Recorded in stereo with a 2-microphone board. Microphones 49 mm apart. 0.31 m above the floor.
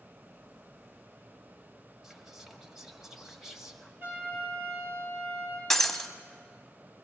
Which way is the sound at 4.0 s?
50° right (ahead or behind).